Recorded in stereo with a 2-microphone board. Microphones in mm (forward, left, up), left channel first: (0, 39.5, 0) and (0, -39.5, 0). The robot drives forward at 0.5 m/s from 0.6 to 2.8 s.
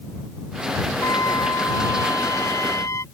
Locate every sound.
1.0 s a trumpet: 50° left (ahead or behind); by 3.0 s 40° left (ahead or behind)